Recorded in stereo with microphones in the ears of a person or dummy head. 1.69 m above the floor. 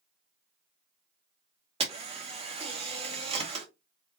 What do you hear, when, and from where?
1.8 s a camera shutter: 35° right (ahead or behind), 1.5 m